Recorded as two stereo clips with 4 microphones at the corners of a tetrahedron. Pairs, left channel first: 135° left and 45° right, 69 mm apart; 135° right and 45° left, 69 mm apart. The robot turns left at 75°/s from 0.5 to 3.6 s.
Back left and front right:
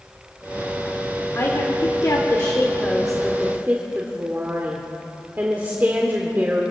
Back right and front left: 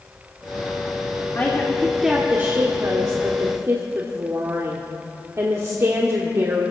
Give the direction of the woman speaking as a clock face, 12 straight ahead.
6 o'clock.